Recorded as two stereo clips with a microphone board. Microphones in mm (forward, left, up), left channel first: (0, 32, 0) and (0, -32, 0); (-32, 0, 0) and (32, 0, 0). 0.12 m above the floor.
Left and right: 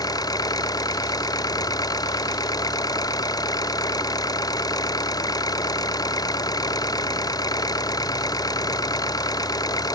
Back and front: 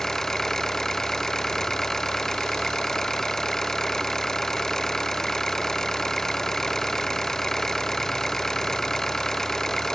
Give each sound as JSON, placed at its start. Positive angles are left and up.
{"t": 0.0, "sound": "an engine running", "azimuth_deg": 100}